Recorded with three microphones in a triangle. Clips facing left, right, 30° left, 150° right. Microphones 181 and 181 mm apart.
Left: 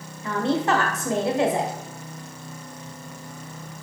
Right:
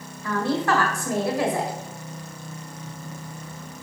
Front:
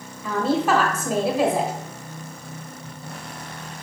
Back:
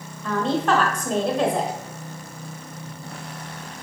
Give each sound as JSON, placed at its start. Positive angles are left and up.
{"t": 0.2, "sound": "a woman speaking", "azimuth_deg": 105, "distance_m": 1.5}